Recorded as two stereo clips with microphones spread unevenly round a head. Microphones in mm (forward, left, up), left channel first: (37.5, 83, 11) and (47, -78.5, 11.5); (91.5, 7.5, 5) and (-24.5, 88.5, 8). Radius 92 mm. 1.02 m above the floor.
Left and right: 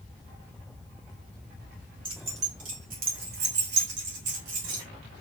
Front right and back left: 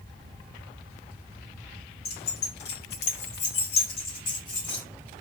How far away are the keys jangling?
About 2 m.